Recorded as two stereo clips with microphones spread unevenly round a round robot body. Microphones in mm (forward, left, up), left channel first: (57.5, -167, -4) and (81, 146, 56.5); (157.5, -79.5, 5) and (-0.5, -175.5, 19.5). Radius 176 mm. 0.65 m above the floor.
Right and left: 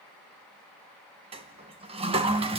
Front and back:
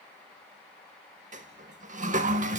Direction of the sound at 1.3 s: 155° left.